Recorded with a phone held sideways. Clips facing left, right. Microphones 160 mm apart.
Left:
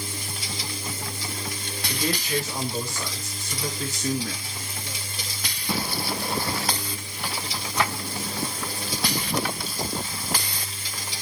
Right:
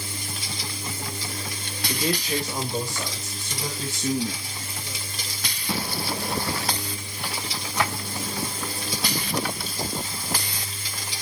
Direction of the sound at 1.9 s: 35° right (ahead or behind).